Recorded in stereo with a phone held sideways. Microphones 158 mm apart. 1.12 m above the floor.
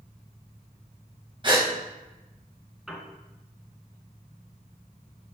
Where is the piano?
Centre (ahead or behind), 1.7 m.